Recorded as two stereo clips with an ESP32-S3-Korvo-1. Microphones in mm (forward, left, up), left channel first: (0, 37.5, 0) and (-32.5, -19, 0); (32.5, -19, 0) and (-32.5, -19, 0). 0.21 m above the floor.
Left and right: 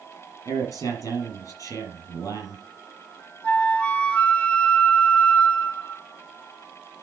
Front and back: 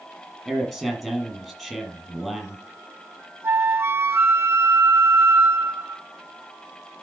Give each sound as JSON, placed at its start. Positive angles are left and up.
{"t": 0.5, "sound": "a man speaking", "azimuth_deg": 85, "distance_m": 5.5}
{"t": 3.4, "sound": "a flute", "azimuth_deg": 130, "distance_m": 0.5}